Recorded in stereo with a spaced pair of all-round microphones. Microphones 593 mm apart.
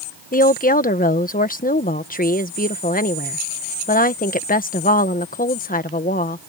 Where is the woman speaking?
15° left (ahead or behind).